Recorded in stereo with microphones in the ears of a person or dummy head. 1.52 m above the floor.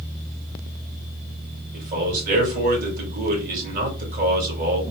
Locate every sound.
1.7 s a man speaking: 45° right (ahead or behind), 1.9 m